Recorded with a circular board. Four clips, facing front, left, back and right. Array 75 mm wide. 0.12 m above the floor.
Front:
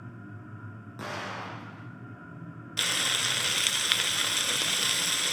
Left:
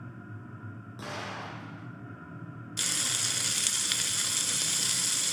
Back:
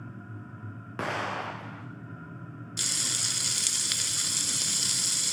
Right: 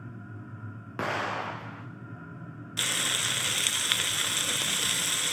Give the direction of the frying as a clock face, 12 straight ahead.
1 o'clock.